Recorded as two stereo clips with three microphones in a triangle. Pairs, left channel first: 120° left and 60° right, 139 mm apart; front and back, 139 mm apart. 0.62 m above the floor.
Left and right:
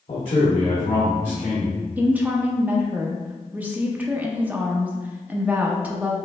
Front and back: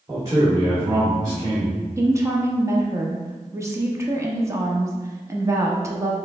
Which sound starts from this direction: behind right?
A woman speaking, at 2.0 s.